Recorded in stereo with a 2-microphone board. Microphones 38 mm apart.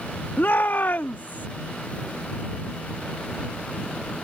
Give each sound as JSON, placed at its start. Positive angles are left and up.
{"t": 0.4, "sound": "a shout", "side_deg": 65}